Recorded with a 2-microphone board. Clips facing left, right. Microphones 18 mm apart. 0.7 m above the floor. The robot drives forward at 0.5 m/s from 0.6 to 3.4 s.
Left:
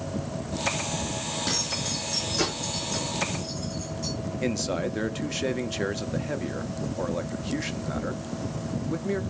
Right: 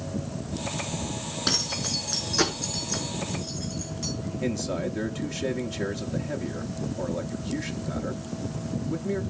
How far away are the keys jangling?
About 5.5 m.